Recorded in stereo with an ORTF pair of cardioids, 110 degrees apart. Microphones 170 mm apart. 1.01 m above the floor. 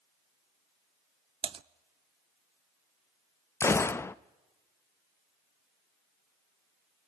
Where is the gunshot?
15° left, 0.5 m.